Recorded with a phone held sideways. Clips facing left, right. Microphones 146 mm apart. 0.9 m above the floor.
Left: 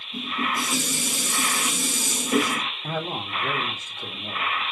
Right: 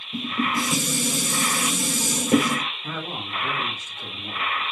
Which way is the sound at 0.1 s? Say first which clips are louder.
Right 3 dB; 40° right (ahead or behind).